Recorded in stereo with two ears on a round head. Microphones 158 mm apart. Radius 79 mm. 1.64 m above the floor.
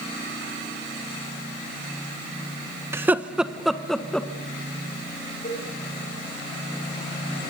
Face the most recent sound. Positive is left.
turn(degrees=50)  # may be behind; listen again after turning